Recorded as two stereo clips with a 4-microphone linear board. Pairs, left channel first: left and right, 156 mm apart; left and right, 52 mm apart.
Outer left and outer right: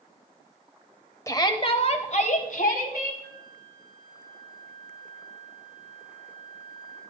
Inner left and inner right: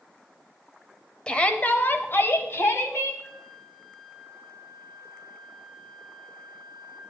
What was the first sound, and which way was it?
A shout, 20° left (ahead or behind).